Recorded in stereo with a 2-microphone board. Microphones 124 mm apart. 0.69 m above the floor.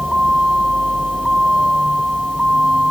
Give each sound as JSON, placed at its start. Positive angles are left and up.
{"t": 0.0, "sound": "a vehicle", "side_deg": -5}